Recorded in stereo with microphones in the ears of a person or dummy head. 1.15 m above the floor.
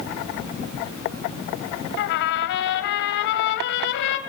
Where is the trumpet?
60° left (ahead or behind), 1.8 m.